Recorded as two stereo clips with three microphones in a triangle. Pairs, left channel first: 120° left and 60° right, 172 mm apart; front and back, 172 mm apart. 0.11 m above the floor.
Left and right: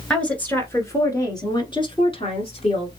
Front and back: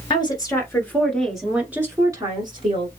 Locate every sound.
0.1 s a woman speaking: 40° left, 1.5 m; by 2.9 s 145° left, 1.7 m